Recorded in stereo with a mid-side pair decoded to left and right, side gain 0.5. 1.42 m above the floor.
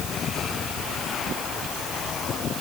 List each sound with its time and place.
Only background noise.